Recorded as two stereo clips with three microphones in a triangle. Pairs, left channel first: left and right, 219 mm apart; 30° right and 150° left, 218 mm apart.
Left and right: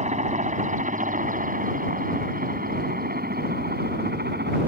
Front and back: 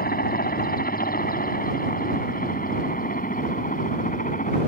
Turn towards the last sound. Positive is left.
turn(degrees=-70)